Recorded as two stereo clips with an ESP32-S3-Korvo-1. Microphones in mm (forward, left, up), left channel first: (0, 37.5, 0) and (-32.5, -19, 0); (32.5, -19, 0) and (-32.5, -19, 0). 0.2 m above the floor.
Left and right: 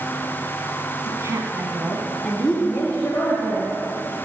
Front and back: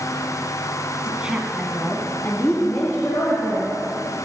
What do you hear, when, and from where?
1.1 s a woman speaking: 115° right, 1.9 m; by 3.7 s 15° left, 3 m